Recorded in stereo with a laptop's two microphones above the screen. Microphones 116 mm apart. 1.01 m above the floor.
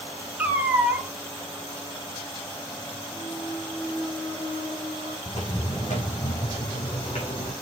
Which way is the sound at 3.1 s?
50° left (ahead or behind).